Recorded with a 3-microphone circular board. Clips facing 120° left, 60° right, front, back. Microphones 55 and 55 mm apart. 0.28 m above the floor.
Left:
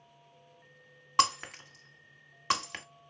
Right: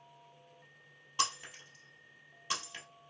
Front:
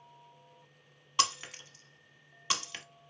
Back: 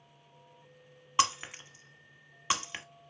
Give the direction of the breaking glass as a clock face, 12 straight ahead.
8 o'clock.